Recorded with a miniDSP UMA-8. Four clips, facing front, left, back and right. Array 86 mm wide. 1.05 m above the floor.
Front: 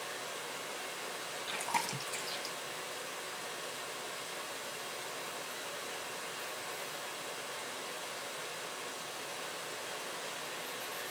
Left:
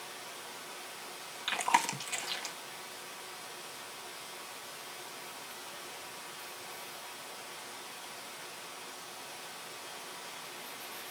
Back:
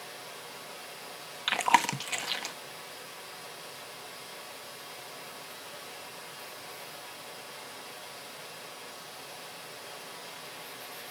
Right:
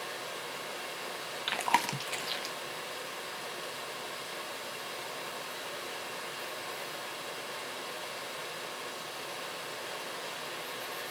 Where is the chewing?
170° right, 1.1 m.